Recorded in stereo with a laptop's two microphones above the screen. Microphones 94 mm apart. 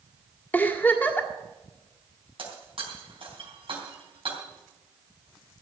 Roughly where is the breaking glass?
Right.